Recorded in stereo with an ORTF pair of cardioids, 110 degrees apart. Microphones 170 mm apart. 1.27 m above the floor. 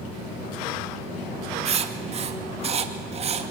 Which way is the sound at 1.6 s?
40° right.